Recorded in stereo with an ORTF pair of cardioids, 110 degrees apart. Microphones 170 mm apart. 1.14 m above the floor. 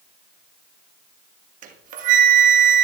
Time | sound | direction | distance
1.6 | a flute | 50° right | 1.2 m